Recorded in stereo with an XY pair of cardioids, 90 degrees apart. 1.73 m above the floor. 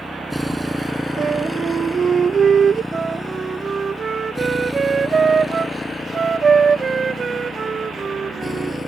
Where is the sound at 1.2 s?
45° right.